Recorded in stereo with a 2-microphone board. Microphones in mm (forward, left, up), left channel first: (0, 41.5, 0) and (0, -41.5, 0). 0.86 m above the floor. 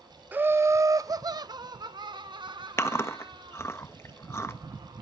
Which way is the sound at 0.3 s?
20° right (ahead or behind).